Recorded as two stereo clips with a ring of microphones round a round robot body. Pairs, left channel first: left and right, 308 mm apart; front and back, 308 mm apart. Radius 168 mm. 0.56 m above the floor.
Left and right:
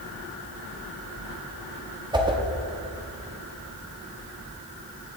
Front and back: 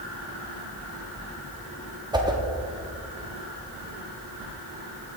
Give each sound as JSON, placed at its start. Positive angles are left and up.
{"t": 2.1, "sound": "a whoosh", "azimuth_deg": -135, "distance_m": 0.9}